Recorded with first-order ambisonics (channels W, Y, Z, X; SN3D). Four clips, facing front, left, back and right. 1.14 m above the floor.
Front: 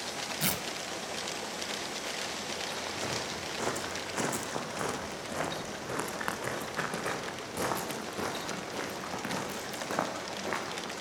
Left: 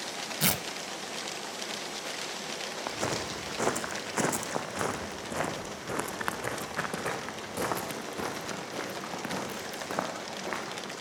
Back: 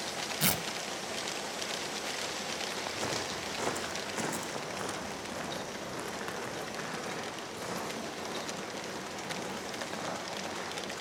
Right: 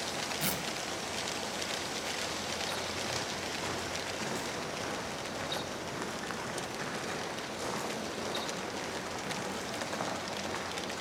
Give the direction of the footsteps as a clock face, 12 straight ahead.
9 o'clock.